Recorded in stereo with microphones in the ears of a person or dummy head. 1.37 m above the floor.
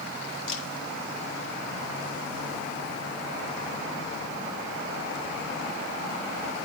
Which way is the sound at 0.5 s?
70° left (ahead or behind).